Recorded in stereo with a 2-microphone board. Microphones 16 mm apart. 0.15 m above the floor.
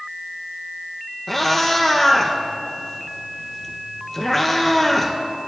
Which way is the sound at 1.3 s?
15° left (ahead or behind).